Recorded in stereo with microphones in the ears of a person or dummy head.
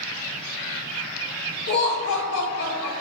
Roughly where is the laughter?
Left.